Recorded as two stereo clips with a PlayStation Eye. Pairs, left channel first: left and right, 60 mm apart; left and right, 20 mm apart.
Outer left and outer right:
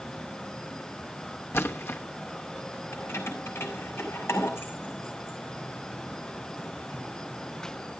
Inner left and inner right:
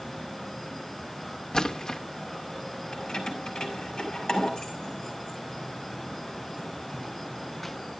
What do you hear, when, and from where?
1.5 s a splash: 45° left (ahead or behind), 1.0 m
2.9 s keys jangling: 45° left (ahead or behind), 4 m